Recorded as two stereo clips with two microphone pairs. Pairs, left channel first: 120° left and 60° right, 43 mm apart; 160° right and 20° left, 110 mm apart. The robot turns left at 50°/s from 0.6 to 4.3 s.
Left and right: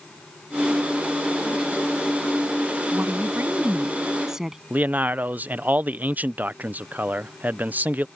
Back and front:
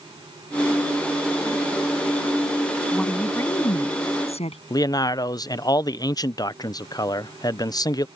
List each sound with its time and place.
2.9 s a woman speaking: 70° right; by 4.6 s 135° right
4.7 s a man speaking: 105° right